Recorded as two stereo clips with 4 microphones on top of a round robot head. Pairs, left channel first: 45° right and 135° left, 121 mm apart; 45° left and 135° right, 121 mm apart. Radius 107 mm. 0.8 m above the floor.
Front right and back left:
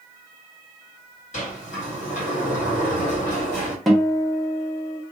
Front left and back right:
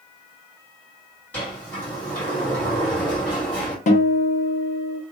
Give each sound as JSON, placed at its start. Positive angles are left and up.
{"t": 1.3, "sound": "a sliding door", "azimuth_deg": -35, "distance_m": 2.0}
{"t": 3.9, "sound": "a guitar", "azimuth_deg": 45, "distance_m": 1.0}